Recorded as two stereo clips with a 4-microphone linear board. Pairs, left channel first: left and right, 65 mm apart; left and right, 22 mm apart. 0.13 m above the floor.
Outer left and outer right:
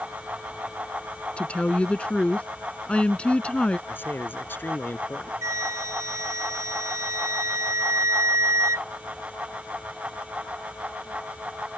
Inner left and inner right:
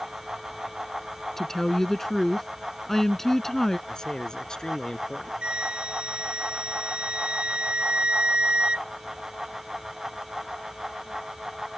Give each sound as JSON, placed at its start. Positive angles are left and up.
{"t": 1.4, "sound": "a woman speaking", "side_deg": 20}
{"t": 3.9, "sound": "a man speaking", "side_deg": 35}
{"t": 5.4, "sound": "a flute", "side_deg": -55}